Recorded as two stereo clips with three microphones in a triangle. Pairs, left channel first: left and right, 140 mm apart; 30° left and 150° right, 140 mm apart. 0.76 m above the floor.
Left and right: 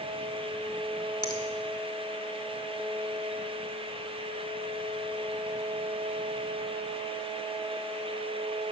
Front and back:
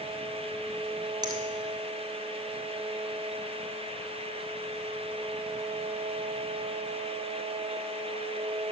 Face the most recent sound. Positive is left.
turn(degrees=150)